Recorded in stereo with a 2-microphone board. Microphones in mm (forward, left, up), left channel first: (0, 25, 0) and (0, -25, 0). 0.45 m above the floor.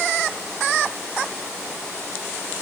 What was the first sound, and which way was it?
Only background noise.